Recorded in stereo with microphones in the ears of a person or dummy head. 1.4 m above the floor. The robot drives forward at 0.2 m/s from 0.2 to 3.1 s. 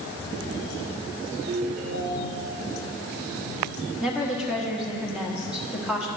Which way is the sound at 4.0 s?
5° right (ahead or behind).